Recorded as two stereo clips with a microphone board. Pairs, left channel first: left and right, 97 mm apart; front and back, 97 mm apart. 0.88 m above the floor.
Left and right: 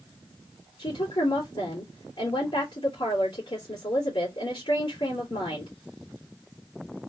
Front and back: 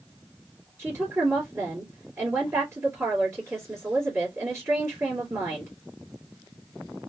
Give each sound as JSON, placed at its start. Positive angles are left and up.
{"t": 0.8, "sound": "a woman speaking", "azimuth_deg": 120, "distance_m": 2.0}